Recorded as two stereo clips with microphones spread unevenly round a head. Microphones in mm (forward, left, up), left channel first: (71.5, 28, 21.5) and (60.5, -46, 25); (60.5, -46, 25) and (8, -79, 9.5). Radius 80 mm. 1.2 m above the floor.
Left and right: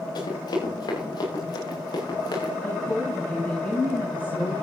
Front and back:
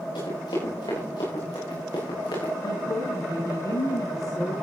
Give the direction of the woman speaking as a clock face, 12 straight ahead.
12 o'clock.